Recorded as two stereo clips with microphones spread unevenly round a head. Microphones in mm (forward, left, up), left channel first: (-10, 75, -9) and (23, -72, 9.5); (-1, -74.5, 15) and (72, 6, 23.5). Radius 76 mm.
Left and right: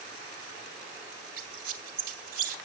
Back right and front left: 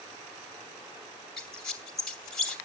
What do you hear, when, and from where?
1.4 s a squeak: 45° right, 2 m